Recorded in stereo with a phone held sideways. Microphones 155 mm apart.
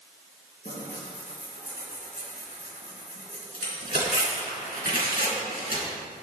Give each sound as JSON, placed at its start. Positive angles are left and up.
{"t": 0.7, "sound": "tearing paper", "side_deg": 70, "distance_m": 3.0}